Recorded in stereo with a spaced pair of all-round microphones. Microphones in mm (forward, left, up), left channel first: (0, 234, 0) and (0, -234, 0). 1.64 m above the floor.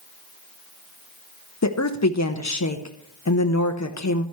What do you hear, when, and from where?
1.6 s a woman speaking: 35° left (ahead or behind), 1.0 m